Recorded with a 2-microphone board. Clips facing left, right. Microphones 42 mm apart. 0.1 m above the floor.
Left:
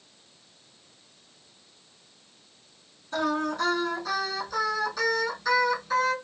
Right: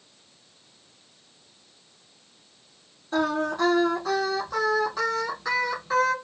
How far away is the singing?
About 3.5 m.